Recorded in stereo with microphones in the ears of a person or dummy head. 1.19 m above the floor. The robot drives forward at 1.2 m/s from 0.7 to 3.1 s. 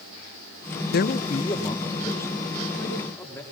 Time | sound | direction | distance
0.9 | a man speaking | 45° left (ahead or behind) | 0.5 m